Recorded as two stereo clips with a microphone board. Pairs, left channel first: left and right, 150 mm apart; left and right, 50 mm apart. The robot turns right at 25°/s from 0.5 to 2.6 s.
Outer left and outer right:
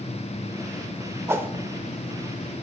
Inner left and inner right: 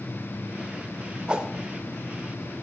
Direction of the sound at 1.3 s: 20° right (ahead or behind).